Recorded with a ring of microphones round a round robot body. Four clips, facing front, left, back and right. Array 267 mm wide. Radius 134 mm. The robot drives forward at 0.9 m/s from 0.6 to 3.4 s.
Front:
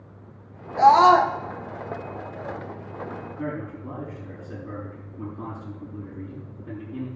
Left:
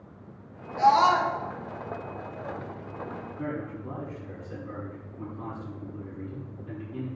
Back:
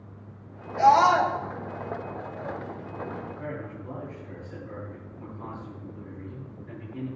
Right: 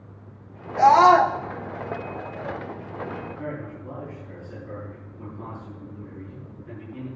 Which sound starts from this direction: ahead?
A man speaking, at 3.4 s.